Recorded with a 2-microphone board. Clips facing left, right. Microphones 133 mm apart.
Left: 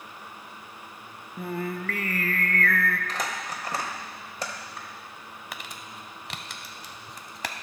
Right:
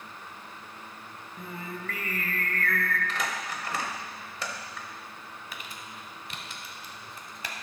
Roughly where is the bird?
I don't hear a bird.